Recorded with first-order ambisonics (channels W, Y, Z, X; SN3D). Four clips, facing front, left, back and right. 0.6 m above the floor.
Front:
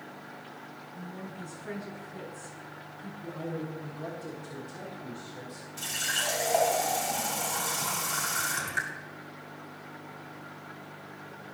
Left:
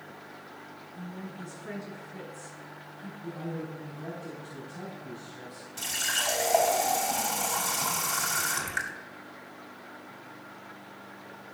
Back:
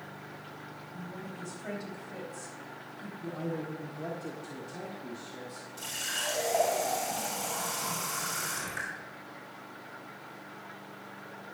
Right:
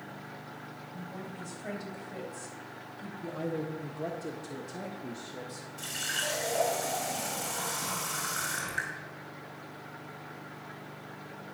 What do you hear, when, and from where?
0.9 s a woman speaking: 130° right, 4 m
3.2 s a man speaking: 105° right, 1.4 m
5.8 s a running tap: 75° left, 2.5 m